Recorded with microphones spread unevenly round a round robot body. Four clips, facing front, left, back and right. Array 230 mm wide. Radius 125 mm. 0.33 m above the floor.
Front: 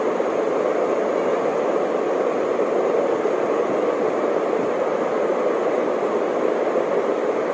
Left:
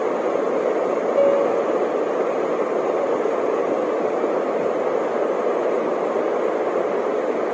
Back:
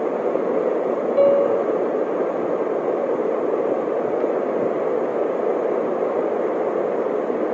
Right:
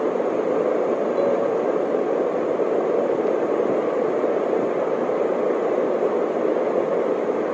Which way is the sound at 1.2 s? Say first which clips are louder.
Left 6 dB, back 4 dB; 145° left.